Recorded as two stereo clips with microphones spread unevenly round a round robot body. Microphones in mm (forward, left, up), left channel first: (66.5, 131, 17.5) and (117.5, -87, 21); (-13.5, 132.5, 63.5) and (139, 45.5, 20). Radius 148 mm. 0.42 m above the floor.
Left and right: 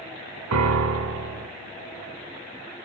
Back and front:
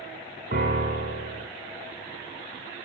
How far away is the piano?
About 1.6 m.